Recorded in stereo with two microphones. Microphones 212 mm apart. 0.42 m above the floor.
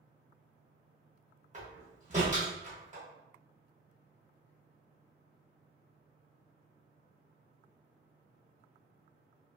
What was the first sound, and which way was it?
A door slam, 35° right (ahead or behind).